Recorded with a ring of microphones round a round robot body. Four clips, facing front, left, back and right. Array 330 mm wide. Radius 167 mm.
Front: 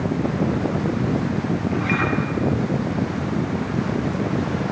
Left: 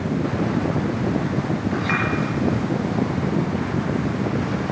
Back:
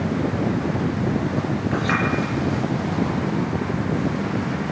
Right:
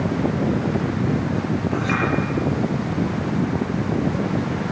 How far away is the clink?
About 7 m.